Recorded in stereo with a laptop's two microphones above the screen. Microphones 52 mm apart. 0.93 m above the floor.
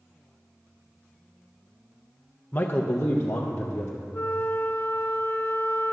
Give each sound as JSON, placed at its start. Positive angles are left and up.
{"t": 2.5, "sound": "a man speaking", "side_deg": 35, "distance_m": 0.5}
{"t": 4.1, "sound": "a flute", "side_deg": 40, "distance_m": 0.6}